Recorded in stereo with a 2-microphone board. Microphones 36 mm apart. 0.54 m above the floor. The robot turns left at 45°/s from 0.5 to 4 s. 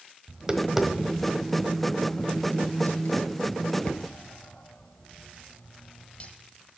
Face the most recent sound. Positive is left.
turn(degrees=40)  # may be behind; listen again after turning